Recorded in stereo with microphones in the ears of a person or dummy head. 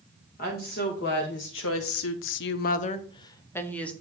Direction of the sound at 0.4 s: 45° left (ahead or behind).